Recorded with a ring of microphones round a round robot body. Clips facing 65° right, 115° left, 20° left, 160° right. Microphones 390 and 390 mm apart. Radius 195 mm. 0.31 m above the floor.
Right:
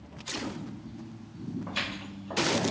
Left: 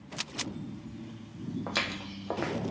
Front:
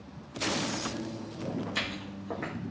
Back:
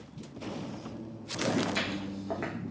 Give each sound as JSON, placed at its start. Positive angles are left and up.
{"t": 1.7, "sound": "footsteps", "azimuth_deg": 120, "distance_m": 0.9}